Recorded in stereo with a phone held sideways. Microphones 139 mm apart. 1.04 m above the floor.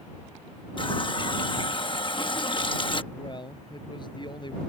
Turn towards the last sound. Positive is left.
turn(degrees=35)  # may be behind; listen again after turning